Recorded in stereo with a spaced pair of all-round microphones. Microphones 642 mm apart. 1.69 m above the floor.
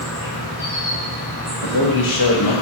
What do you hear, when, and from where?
0.0 s an insect: 50° left (ahead or behind), 1.6 m
1.6 s a man speaking: 45° left (ahead or behind), 0.6 m